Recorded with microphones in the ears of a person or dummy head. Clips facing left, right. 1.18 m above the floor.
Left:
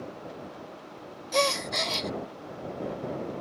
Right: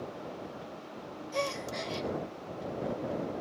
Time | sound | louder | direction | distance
1.3 | a gasp | left 7 dB | 80° left | ?